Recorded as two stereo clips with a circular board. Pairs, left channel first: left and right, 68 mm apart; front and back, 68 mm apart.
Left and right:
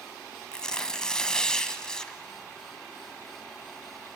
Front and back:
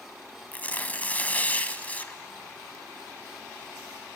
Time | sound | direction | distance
0.5 | tearing paper | 25° left | 1.0 m